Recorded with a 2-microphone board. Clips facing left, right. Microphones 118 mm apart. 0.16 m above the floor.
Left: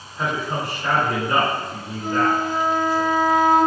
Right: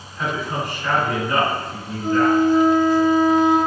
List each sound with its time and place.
0.2 s a man speaking: 35° left (ahead or behind), 1.5 m
2.0 s a flute: 5° left (ahead or behind), 1.7 m